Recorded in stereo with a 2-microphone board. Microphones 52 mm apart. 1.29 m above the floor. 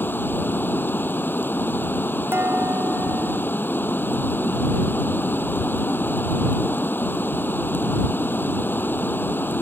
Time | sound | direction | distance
0.0 | running water | 40° left (ahead or behind) | ?
2.3 | dishes clattering | 45° right (ahead or behind) | ?